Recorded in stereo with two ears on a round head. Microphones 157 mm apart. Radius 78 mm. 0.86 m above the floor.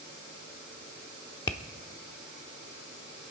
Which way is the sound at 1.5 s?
25° left (ahead or behind).